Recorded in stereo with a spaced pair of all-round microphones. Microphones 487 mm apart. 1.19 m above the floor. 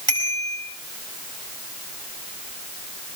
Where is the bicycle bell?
75° right (ahead or behind), 6.5 m.